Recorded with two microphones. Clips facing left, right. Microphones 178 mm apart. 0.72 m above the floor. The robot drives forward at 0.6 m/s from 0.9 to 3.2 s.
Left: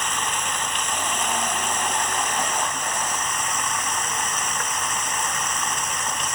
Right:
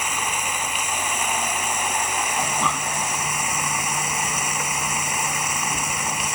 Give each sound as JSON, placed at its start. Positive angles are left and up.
{"t": 0.0, "sound": "running water", "side_deg": -10}
{"t": 2.4, "sound": "breathing", "side_deg": -80}